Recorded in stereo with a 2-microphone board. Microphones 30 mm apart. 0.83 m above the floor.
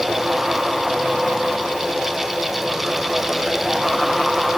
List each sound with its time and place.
Only background noise.